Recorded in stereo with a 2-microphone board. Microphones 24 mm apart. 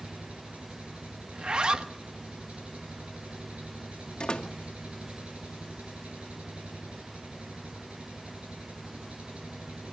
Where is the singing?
No singing in this recording.